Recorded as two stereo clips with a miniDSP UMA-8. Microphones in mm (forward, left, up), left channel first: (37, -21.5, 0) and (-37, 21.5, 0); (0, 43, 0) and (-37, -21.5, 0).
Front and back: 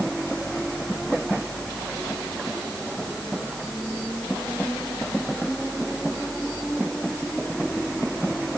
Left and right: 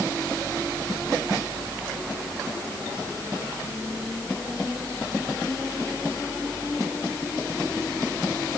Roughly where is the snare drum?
I don't hear a snare drum.